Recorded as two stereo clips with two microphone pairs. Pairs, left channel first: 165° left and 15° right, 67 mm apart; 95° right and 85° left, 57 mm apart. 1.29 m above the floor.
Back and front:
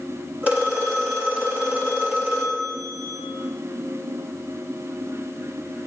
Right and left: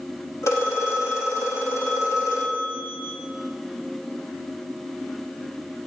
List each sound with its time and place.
0.4 s a phone ringing: 80° right, 2.5 m